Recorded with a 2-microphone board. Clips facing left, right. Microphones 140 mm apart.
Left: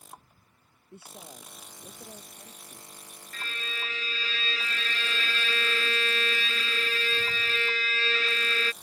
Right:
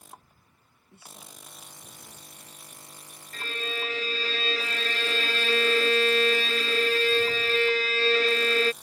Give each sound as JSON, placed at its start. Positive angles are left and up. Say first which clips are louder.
{"t": 0.9, "sound": "a woman speaking", "louder": "left 4 dB", "side_deg": 60}
{"t": 3.3, "sound": "a violin", "louder": "right 6 dB", "side_deg": -40}